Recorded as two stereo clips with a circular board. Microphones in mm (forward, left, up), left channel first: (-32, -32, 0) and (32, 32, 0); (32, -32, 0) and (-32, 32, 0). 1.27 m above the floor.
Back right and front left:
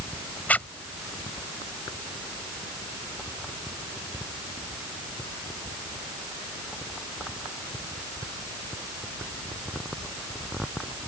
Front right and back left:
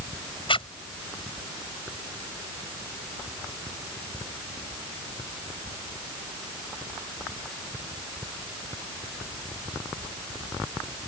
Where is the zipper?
60° right.